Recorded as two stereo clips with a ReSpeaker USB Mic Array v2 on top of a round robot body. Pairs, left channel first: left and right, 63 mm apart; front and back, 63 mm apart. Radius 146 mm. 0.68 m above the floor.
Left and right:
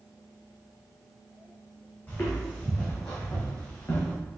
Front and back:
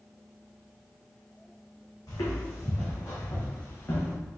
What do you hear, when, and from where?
2.1 s footsteps: 30° left, 2 m; by 4.2 s 50° left, 3.5 m